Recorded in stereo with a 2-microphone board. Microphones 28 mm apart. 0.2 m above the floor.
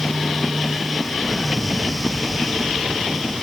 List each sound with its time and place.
1.1 s an explosion: 55° right (ahead or behind), 3.5 m